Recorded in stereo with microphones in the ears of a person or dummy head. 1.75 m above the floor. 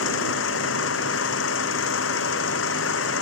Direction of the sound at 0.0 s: 70° left (ahead or behind).